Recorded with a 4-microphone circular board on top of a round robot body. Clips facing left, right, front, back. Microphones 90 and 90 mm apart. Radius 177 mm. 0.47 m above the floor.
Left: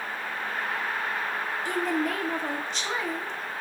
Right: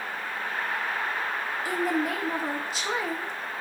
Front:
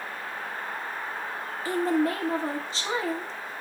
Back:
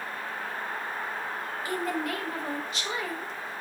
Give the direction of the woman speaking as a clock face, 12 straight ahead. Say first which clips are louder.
Right 1 dB, front 7 dB; 12 o'clock.